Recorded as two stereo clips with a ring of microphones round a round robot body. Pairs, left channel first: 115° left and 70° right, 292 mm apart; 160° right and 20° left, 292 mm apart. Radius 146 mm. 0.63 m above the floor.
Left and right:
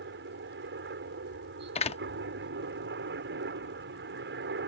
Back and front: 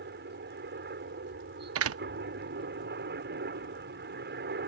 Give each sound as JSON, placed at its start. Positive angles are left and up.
{"t": 0.0, "sound": "a helicopter", "azimuth_deg": -25}
{"t": 1.8, "sound": "a door slam", "azimuth_deg": 45}